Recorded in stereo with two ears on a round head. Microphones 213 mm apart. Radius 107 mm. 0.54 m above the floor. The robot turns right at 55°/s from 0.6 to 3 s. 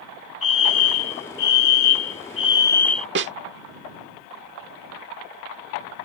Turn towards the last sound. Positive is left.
turn(degrees=-55)  # may be behind; listen again after turning